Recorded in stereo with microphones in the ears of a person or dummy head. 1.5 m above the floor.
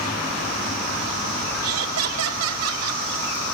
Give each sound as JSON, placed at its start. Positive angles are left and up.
{"t": 1.6, "sound": "laughter", "side_deg": -85, "distance_m": 4.0}